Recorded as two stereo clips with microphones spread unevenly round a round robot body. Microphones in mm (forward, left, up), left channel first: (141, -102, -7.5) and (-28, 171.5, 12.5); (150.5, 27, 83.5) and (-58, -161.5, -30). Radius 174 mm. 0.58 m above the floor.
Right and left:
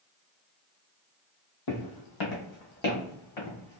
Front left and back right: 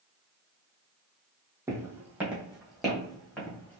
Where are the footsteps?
50° right, 1.5 m; by 3.8 s 40° right, 2.5 m.